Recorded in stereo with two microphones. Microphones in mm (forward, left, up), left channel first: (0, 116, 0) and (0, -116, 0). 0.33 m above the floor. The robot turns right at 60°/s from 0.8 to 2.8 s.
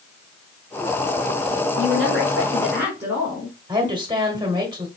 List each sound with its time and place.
1.8 s a woman speaking: 70° right, 2.5 m; by 3.5 s 10° right, 2.5 m
3.7 s a woman speaking: 20° right (ahead or behind), 1.4 m